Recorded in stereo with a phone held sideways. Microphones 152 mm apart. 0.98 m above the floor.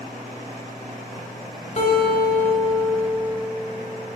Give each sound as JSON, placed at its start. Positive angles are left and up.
{"t": 1.8, "sound": "a guitar", "side_deg": 50, "distance_m": 1.3}